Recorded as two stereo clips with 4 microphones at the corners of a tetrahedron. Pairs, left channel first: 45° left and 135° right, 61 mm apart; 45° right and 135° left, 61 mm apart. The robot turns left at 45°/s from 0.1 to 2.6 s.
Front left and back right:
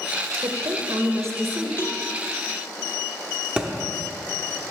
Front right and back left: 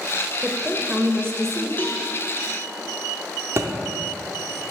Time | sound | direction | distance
0.4 | a woman speaking | 140° right | 0.8 m
1.8 | a cowbell | 5° left | 0.9 m
3.6 | a thud | 155° left | 0.8 m